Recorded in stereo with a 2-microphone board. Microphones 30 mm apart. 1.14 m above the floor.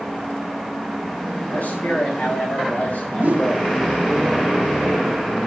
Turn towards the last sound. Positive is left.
turn(degrees=-75)  # may be behind; listen again after turning